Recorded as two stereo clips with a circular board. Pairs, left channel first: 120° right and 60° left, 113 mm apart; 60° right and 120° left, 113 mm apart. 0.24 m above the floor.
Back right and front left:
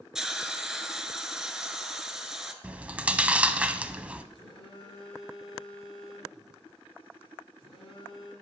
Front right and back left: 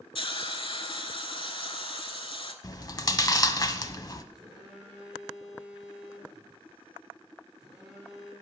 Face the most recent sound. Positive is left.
turn(degrees=-155)